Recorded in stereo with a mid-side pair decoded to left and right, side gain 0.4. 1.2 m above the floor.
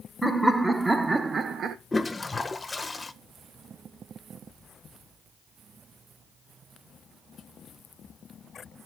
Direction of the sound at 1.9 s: 25° left.